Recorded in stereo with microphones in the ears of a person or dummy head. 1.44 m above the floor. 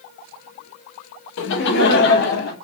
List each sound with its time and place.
1.4 s laughter: 75° left (ahead or behind), 0.8 m; by 2.5 s 65° left (ahead or behind), 1.8 m